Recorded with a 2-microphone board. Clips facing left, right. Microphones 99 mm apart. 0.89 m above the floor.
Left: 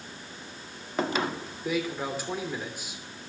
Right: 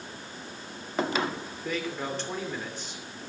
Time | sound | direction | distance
1.6 | a man speaking | 10° left (ahead or behind) | 2.5 m